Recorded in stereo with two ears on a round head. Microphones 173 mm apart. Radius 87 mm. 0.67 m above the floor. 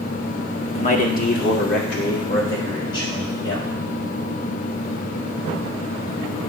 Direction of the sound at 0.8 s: 30° left (ahead or behind).